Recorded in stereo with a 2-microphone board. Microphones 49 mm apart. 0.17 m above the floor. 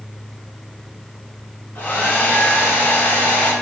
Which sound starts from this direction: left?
A hair dryer, at 1.8 s.